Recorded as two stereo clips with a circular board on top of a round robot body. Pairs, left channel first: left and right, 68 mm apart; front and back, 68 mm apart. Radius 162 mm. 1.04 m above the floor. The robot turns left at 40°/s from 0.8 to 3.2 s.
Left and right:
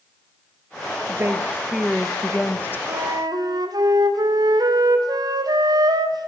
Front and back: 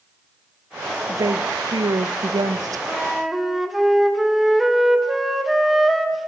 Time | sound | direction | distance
1.1 | a woman speaking | 145° right | 0.9 m
2.9 | a flute | 80° right | 1.9 m